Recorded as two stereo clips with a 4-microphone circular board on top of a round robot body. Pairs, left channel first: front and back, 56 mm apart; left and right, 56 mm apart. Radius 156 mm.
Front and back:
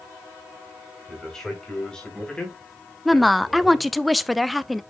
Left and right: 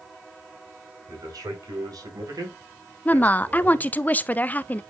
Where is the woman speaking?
90° left, 0.8 m.